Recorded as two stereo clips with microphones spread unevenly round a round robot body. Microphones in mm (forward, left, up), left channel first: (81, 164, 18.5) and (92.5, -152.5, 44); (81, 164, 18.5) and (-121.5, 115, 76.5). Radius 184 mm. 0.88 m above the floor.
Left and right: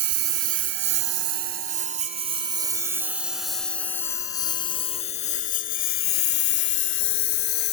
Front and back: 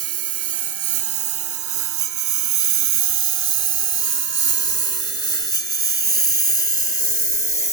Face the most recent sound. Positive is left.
turn(degrees=150)